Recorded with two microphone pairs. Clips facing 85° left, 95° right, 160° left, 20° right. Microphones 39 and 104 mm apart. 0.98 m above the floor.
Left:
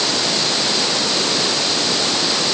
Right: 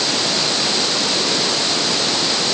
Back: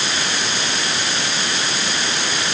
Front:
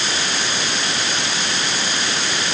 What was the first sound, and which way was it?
Only background noise.